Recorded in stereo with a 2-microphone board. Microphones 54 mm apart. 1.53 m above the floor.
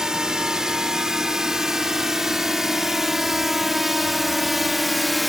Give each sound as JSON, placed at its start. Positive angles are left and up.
{"t": 0.0, "sound": "a drone", "side_deg": -10}